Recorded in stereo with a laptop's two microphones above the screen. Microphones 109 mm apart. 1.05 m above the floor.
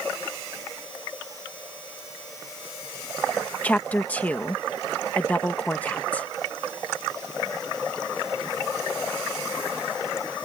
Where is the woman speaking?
15° left (ahead or behind).